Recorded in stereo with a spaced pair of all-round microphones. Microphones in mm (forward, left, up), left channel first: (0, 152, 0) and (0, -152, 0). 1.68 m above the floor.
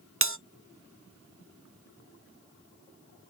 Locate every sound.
0.2 s a bell: 45° right (ahead or behind), 0.6 m